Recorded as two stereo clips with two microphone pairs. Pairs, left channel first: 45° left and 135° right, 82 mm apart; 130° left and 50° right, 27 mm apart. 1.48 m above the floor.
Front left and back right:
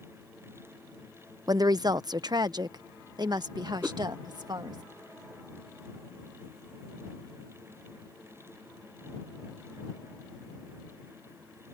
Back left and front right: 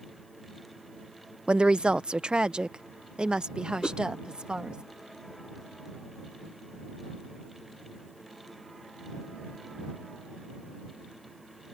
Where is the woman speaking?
100° right; by 4.8 s 105° right.